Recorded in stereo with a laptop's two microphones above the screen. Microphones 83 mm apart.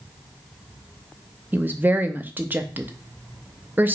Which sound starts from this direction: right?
A woman speaking, at 1.5 s.